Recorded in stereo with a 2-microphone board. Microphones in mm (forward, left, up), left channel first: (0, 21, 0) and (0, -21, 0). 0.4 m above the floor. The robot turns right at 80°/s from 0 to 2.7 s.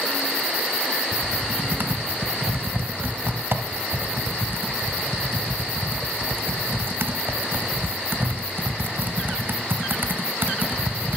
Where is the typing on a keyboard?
Centre (ahead or behind), 1.1 m; by 11.2 s 55° right (ahead or behind), 1.1 m.